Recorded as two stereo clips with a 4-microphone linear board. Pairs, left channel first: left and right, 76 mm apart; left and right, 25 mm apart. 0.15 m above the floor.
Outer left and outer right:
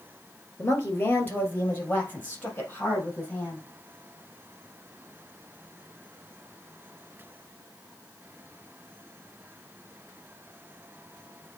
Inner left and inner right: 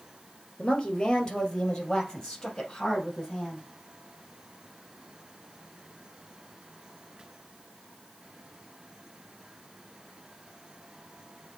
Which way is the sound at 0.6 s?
25° left (ahead or behind).